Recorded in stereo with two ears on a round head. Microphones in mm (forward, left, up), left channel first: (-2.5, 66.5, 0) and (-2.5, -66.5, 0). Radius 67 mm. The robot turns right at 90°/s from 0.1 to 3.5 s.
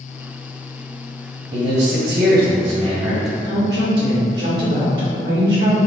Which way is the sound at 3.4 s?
80° right.